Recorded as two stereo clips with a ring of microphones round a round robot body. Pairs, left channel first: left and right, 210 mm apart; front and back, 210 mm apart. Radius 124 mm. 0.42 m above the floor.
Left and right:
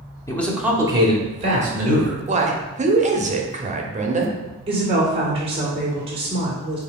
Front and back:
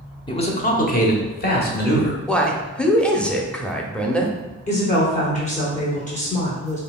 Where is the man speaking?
35° left, 0.8 m; by 2.2 s 40° right, 2 m.